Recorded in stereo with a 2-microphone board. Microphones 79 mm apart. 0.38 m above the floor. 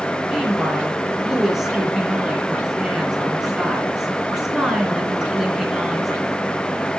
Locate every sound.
0.3 s a woman speaking: 5° right (ahead or behind), 3.5 m